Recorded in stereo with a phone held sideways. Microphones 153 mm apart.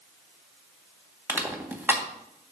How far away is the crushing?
About 1.6 m.